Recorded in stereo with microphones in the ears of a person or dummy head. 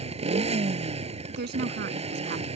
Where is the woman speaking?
50° right (ahead or behind).